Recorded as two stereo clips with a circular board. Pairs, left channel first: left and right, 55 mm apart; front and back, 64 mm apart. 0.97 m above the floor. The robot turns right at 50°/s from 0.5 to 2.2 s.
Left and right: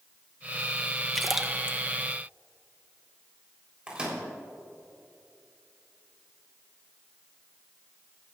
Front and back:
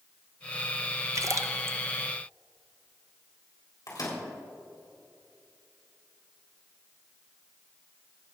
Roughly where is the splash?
Behind.